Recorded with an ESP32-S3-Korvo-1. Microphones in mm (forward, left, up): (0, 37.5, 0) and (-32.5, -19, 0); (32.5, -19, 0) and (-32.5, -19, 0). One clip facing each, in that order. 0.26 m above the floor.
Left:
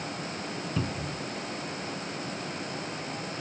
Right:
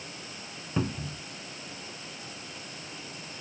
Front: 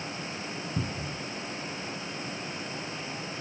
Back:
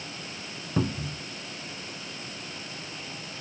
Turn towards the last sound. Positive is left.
turn(degrees=175)